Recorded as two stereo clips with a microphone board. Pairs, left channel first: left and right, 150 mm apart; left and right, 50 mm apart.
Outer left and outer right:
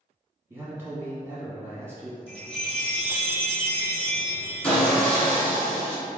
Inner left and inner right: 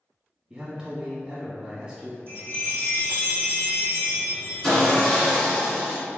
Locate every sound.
0.5 s a man speaking: 15° right (ahead or behind), 1.2 m
2.3 s a chime: 40° left (ahead or behind), 1.3 m
4.6 s sawing: 15° left (ahead or behind), 1.3 m